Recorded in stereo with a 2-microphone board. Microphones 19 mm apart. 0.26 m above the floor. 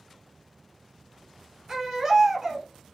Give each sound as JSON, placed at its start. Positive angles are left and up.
{"t": 1.7, "sound": "a baby crying", "side_deg": -20, "distance_m": 1.2}